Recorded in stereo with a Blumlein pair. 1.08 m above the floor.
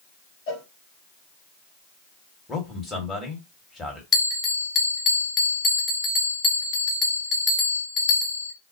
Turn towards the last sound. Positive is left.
turn(degrees=20)